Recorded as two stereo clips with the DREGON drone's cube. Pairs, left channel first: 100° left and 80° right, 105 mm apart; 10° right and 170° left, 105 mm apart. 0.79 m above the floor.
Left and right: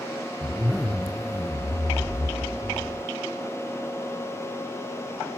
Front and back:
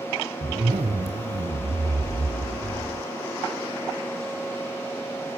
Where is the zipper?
170° right, 2.5 m.